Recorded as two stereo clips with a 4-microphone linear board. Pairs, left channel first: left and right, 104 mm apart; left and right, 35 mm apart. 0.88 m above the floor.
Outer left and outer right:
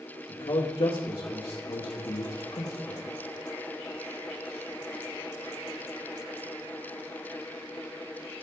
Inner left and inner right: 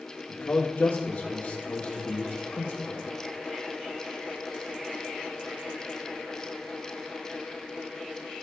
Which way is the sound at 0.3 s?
60° left (ahead or behind).